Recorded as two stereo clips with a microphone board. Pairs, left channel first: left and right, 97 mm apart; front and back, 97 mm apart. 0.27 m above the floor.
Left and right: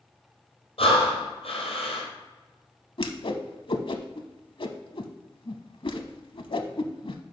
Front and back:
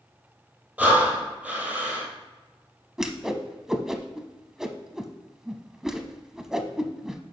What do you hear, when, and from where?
0.8 s breathing: 100° left, 2.5 m
3.0 s a whoosh: 95° left, 0.7 m